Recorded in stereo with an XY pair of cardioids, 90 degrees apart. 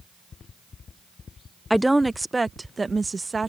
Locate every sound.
1.7 s a woman speaking: straight ahead; by 3.5 s 30° right